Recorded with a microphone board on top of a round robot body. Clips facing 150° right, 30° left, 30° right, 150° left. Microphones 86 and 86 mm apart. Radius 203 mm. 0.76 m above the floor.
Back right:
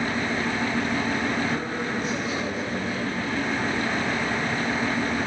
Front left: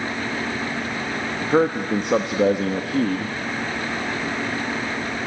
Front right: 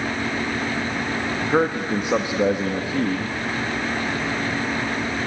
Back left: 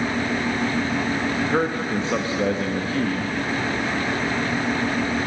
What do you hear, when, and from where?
1.4 s a man speaking: 45° left, 1.3 m